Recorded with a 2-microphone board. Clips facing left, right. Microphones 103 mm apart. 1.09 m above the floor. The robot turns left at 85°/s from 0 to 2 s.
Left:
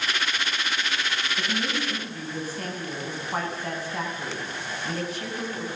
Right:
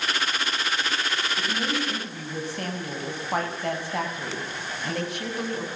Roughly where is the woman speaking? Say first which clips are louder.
Right 1 dB; ahead.